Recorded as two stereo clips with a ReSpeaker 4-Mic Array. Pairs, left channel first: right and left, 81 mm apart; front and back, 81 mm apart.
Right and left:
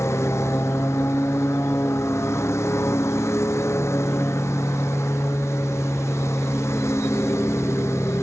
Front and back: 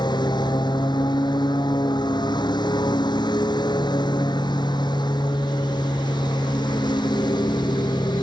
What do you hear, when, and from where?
0.0 s a lawn mower: 30° right